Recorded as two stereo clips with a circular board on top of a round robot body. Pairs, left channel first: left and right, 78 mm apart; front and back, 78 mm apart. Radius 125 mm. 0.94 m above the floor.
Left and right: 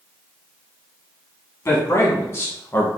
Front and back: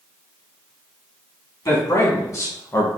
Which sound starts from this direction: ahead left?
A man speaking, at 1.6 s.